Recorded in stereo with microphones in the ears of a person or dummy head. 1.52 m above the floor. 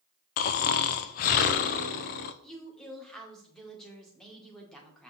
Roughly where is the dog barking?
No dog barking in this recording.